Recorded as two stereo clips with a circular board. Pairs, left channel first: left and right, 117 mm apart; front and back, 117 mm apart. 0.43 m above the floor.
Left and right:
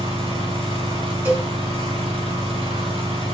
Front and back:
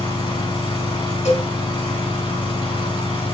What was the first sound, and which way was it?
An engine running, 45° right.